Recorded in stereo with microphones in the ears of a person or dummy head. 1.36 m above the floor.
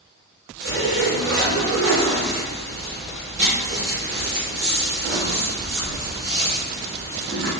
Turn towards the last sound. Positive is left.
turn(degrees=-60)  # may be behind; listen again after turning